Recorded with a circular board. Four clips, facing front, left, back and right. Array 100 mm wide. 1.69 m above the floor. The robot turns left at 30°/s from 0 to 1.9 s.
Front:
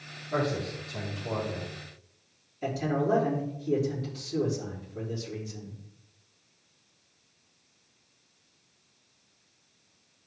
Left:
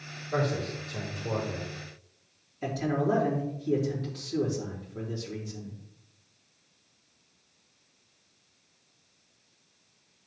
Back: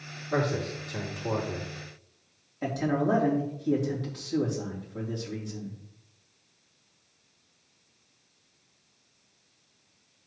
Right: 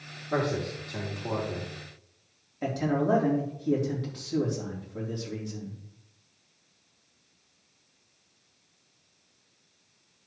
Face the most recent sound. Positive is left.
turn(degrees=-130)